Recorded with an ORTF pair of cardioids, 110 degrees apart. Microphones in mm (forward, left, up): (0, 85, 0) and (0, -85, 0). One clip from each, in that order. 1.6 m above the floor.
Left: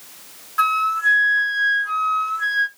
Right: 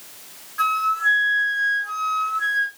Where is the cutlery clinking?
No cutlery clinking in this recording.